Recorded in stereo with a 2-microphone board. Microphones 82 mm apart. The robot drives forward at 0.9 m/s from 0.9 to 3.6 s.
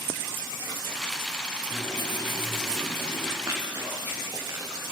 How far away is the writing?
About 4 m.